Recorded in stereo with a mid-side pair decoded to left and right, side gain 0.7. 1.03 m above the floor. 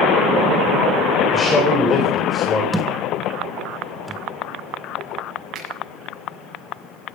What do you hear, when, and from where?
1.3 s a man speaking: 25° left, 3.5 m
2.7 s a thud: 5° right, 1.6 m
5.5 s a finger snap: 45° right, 7.5 m